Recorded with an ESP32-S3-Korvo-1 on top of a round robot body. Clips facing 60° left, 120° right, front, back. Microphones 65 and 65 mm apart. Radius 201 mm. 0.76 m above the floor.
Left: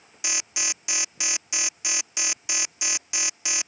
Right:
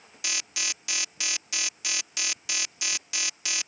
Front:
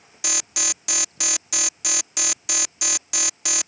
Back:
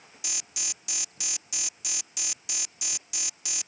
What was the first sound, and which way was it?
An alarm, 10° right.